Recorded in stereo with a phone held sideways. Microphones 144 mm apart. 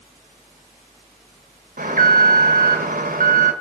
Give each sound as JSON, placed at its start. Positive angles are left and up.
{"t": 1.8, "sound": "an alarm", "side_deg": -80, "distance_m": 1.8}